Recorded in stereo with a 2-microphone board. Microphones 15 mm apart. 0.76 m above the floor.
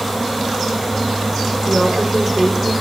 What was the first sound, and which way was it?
A woman speaking, 35° right (ahead or behind).